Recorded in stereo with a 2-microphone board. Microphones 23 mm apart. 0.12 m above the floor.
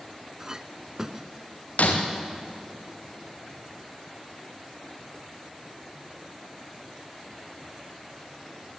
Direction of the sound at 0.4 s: 25° right (ahead or behind).